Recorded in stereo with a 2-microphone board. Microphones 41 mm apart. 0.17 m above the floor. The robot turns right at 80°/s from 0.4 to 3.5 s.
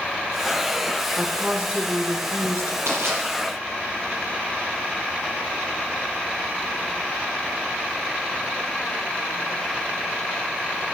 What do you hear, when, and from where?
1.2 s a woman speaking: straight behind, 2.5 m; by 2.8 s 55° right, 2.5 m
2.9 s crushing: 75° right (ahead or behind), 5 m; by 3.2 s 65° right (ahead or behind), 5 m